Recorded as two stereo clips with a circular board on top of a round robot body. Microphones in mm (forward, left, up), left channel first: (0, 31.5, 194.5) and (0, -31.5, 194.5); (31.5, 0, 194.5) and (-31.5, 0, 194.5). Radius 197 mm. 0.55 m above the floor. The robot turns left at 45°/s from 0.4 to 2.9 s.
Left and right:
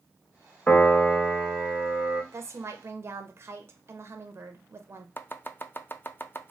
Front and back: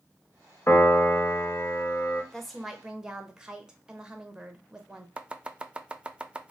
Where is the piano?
35° left, 1.5 m; by 2.2 s 35° right, 1.5 m.